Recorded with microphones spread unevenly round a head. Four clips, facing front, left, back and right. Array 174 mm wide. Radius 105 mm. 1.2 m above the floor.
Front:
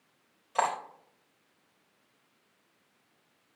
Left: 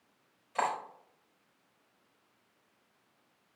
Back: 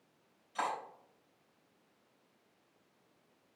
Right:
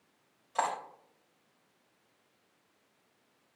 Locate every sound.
0.6 s cutlery clinking: 5° right, 3.5 m